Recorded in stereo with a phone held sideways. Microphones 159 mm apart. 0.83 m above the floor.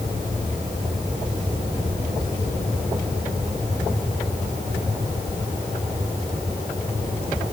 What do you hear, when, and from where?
Only background noise.